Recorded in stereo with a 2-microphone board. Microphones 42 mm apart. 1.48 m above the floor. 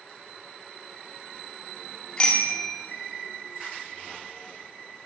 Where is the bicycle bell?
25° left (ahead or behind), 3 m.